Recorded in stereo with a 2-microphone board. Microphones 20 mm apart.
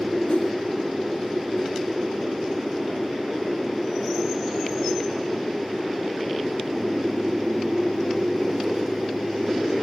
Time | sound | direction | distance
0.3 | a whoosh | 65° left (ahead or behind) | 0.9 m